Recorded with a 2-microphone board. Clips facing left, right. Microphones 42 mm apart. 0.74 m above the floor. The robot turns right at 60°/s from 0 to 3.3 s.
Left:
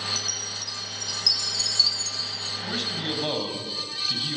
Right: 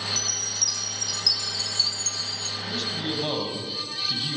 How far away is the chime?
About 0.7 m.